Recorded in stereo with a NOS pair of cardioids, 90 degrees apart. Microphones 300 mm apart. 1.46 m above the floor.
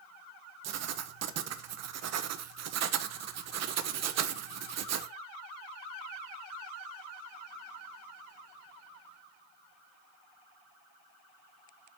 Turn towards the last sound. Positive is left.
turn(degrees=-60)